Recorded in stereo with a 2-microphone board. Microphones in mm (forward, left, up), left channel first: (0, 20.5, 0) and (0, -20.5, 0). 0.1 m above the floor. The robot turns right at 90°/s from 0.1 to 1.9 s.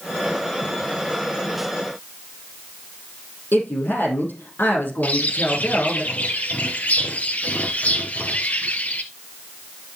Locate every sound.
3.5 s a woman speaking: 65° left (ahead or behind), 4 m
5.0 s a bird: 45° left (ahead or behind), 1.1 m